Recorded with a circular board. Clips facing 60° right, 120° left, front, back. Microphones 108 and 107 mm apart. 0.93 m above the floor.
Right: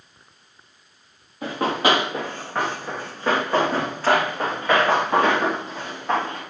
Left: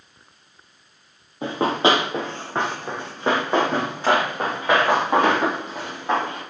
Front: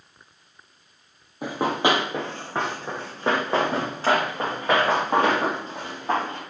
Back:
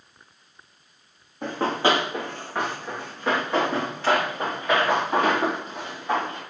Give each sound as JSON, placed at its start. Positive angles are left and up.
{"t": 1.4, "sound": "running footsteps", "azimuth_deg": 75, "distance_m": 1.1}